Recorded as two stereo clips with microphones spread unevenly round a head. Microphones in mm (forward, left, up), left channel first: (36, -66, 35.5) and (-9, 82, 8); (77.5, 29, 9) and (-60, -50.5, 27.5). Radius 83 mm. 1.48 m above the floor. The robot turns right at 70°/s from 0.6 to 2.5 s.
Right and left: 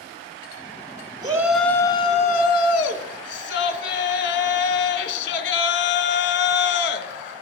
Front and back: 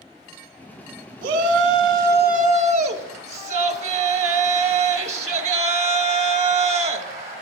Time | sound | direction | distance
1.2 | a shout | 170° left | 1.4 m